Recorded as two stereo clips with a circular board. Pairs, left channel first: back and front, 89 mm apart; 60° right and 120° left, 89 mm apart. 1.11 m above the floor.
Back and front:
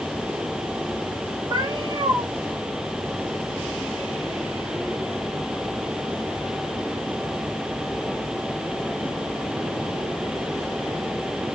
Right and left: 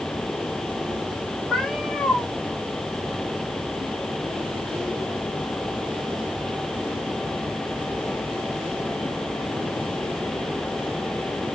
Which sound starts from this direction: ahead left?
A cat meowing, at 1.5 s.